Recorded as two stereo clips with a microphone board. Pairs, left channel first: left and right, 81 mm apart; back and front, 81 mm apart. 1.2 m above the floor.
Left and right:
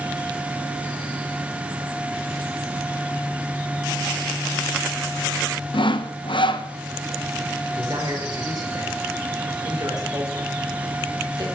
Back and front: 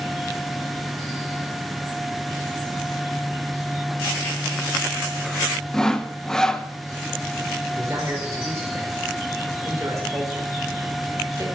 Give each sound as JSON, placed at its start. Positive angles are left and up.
{"t": 5.7, "sound": "sawing", "azimuth_deg": 95, "distance_m": 0.9}
{"t": 7.8, "sound": "a man speaking", "azimuth_deg": -55, "distance_m": 4.0}